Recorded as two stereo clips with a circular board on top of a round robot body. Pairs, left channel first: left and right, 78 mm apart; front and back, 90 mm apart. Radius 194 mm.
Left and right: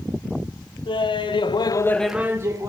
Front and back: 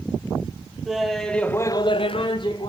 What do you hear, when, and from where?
0.8 s laughter: 95° left, 1.8 m; by 2.7 s 40° right, 1.4 m